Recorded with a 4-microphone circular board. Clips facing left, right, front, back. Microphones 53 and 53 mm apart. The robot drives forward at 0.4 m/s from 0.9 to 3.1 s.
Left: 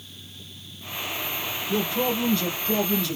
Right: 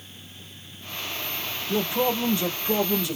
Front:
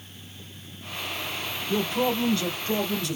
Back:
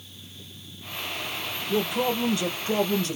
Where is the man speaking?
90° right, 0.8 m; by 3.2 s 155° right, 1.0 m.